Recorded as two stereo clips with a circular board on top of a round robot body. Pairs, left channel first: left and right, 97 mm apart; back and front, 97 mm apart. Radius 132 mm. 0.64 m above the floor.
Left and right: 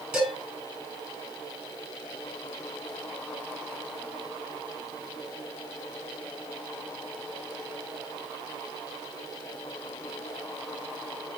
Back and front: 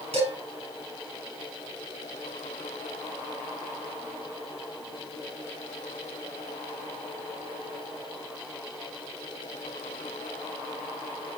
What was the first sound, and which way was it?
Dishes clattering, 10° right.